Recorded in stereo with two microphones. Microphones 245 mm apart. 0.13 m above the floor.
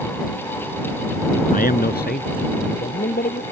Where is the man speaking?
35° left (ahead or behind); by 3.4 s 40° left (ahead or behind).